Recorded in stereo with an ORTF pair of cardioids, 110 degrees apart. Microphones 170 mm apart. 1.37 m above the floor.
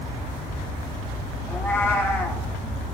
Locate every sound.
1.5 s a cat meowing: 15° left, 2.0 m